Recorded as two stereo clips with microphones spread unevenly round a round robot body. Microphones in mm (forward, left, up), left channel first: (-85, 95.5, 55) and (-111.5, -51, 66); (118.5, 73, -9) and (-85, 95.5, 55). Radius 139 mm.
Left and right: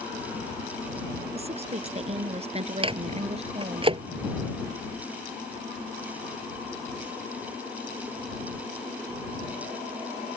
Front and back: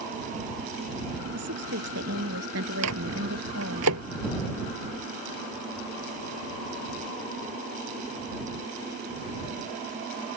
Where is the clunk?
No clunk in this recording.